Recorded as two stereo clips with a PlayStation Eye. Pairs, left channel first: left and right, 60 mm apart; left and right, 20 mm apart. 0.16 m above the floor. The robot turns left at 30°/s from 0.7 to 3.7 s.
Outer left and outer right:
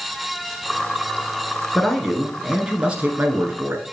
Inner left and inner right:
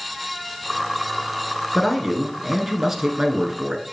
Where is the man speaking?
10° left, 1.8 m; by 3.9 s 50° right, 1.8 m.